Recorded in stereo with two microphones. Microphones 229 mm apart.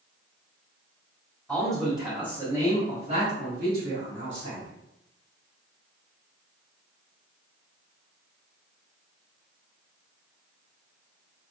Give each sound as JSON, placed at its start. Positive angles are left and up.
{"t": 1.5, "sound": "a man speaking", "side_deg": 5, "distance_m": 1.4}